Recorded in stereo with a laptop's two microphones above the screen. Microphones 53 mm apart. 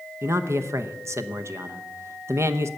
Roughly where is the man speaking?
Right.